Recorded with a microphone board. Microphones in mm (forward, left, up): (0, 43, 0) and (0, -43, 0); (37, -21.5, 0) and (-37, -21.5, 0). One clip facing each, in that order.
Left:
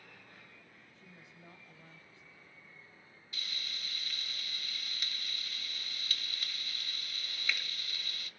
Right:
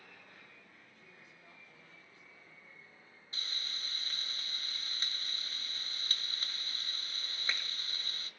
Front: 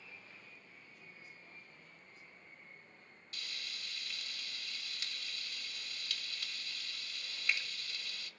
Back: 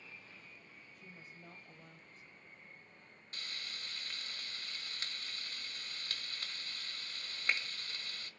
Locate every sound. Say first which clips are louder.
0.9 s a woman speaking: left 2 dB, back 2 dB; 155° left, 1.5 m
3.3 s frying: even, back 1 dB; 135° right, 1.4 m